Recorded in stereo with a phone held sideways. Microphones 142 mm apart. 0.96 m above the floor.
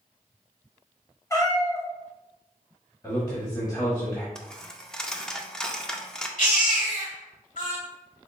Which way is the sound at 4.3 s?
5° left (ahead or behind).